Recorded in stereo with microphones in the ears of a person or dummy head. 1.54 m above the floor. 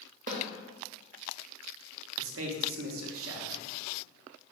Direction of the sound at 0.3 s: 40° right (ahead or behind).